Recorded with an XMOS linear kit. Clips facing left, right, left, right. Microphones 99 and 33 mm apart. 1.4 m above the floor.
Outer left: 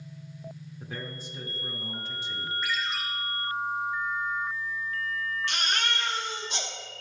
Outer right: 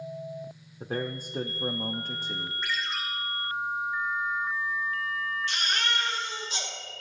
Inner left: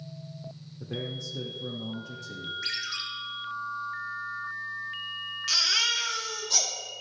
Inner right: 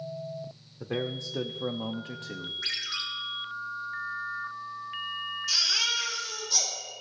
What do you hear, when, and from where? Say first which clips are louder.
0.8 s a man speaking: outer right 8 dB, inner right 3 dB; 40° right (ahead or behind), 0.7 m
2.6 s a ringtone: outer left 1 dB, inner right 1 dB; 5° left (ahead or behind), 2 m
5.5 s a baby crying: even, inner left 2 dB; 65° left (ahead or behind), 1.8 m